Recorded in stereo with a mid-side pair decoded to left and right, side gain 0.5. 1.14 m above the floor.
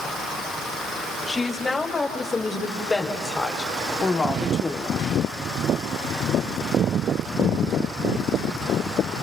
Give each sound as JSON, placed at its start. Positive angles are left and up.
{"t": 1.3, "sound": "a woman speaking", "azimuth_deg": 25, "distance_m": 6.0}